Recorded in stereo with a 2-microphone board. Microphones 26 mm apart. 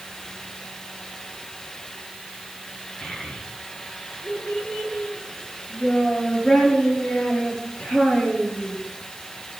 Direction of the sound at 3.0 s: 70° left (ahead or behind).